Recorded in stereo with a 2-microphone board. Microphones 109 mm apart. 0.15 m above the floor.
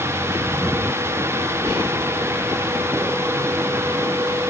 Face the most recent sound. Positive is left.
turn(degrees=-25)  # may be behind; listen again after turning